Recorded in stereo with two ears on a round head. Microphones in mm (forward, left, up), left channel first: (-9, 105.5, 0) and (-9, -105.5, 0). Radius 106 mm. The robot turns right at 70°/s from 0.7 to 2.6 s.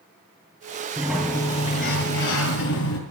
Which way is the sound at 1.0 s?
15° right.